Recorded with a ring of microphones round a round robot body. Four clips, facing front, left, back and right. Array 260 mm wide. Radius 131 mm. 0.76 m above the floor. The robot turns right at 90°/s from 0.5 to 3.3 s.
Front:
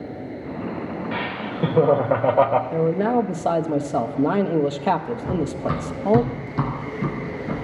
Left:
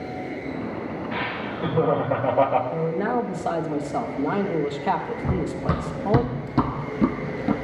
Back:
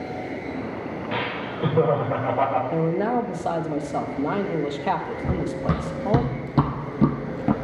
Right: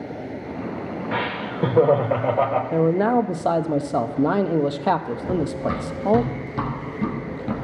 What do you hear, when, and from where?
1.1 s laughter: 110° right, 1.0 m; by 2.6 s 25° left, 1.0 m
2.7 s a man speaking: 105° right, 0.6 m; by 6.2 s 55° right, 0.6 m
5.2 s running footsteps: 135° left, 3 m; by 7.5 s 170° left, 1.3 m